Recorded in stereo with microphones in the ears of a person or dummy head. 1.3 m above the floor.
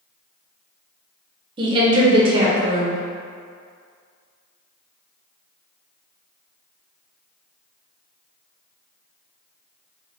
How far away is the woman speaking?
About 0.5 m.